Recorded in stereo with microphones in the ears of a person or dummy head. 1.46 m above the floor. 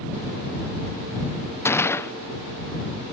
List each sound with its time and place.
1.6 s a gunshot: 15° left (ahead or behind)